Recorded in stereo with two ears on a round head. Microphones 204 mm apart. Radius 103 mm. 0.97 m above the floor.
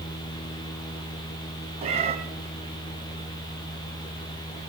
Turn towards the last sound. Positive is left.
turn(degrees=-30)  # may be behind; listen again after turning